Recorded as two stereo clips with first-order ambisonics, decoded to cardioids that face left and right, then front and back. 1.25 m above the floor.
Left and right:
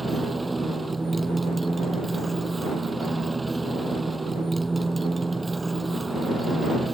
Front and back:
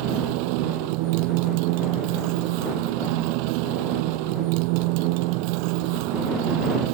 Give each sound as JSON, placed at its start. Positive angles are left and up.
{"t": 0.0, "sound": "a motorcycle", "azimuth_deg": -170}